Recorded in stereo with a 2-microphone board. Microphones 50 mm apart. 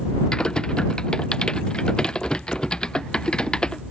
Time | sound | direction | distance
0.3 | typing on a keyboard | 15° left (ahead or behind) | ?